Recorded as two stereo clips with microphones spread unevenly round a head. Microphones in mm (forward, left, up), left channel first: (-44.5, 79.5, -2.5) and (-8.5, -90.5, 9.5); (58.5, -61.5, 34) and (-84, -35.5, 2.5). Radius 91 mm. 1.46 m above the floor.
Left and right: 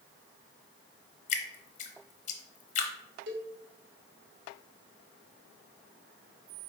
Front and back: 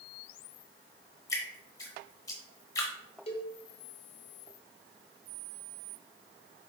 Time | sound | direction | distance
1.3 | dripping | 55° left | 0.8 m
3.3 | a cowbell | 55° right | 1.3 m